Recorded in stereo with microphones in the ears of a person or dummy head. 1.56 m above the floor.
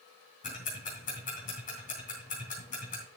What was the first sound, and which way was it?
Ticking, 40° left (ahead or behind).